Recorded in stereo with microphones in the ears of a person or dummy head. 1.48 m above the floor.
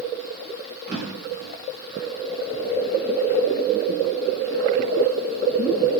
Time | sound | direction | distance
0.9 | a drawer | 45° right (ahead or behind) | 2.5 m